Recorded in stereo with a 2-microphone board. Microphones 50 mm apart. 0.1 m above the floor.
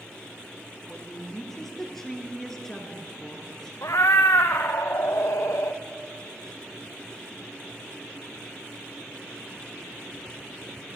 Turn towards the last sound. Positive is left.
turn(degrees=80)